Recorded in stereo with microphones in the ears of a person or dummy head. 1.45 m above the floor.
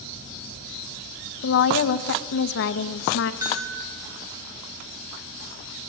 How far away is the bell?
About 8.5 m.